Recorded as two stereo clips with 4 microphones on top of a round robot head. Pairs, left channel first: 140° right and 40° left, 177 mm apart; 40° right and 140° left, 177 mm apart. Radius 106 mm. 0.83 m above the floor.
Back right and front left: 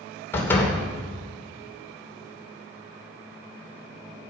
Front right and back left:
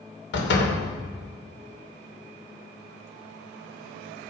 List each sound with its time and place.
0.3 s a door slam: 60° right, 2.5 m